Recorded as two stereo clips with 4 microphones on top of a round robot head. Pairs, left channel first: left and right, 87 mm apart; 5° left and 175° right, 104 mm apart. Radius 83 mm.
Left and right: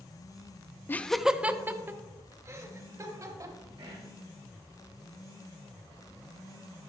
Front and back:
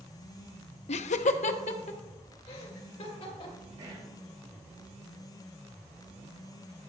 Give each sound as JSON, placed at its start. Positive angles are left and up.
{"t": 0.9, "sound": "laughter", "azimuth_deg": 25, "distance_m": 0.6}
{"t": 3.8, "sound": "whispering", "azimuth_deg": -135, "distance_m": 2.5}